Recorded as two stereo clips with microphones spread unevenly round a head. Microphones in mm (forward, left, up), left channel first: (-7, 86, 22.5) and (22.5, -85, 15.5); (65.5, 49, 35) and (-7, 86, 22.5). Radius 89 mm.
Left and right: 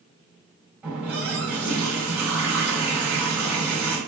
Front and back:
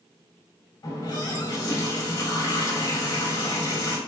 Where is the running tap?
5° left, 3 m.